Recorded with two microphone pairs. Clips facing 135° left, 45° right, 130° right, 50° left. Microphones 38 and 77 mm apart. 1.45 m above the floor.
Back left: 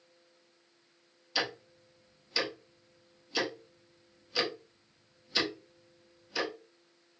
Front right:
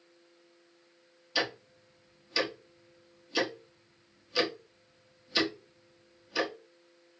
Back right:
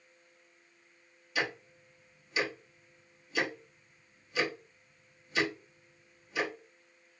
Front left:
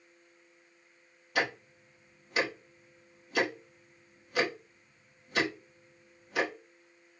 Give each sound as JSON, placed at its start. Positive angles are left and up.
{"t": 1.4, "sound": "ticking", "azimuth_deg": 40, "distance_m": 1.1}